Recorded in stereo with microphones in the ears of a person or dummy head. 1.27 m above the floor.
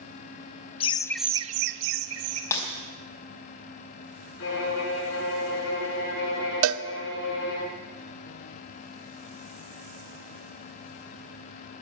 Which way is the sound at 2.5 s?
15° left (ahead or behind).